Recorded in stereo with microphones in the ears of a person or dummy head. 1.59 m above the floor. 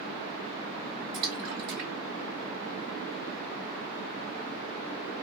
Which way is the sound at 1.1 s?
55° right (ahead or behind).